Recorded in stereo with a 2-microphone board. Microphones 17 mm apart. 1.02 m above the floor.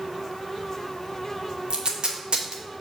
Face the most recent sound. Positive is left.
turn(degrees=-65)  # may be behind; listen again after turning